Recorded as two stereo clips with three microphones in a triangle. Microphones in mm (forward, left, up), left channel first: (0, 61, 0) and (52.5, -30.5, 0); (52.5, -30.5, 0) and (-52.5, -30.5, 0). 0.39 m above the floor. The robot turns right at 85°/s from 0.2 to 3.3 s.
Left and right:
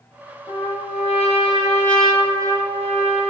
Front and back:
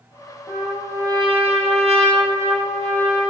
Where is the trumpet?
75° left, 5.5 m; by 3.3 s 45° right, 5.5 m.